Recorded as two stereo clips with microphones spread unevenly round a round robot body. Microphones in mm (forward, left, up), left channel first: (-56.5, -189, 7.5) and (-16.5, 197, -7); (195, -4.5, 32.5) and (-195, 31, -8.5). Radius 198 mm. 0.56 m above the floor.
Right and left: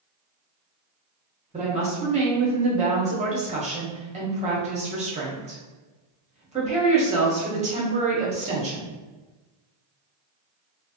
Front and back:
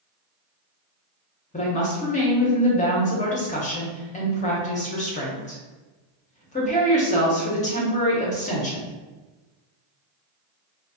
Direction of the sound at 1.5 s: 50° left.